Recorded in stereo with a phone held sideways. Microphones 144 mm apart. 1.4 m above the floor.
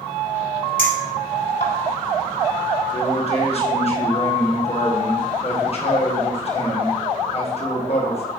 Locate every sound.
0.8 s a clink: 70° left (ahead or behind), 3 m
2.9 s a man speaking: 45° left (ahead or behind), 1.7 m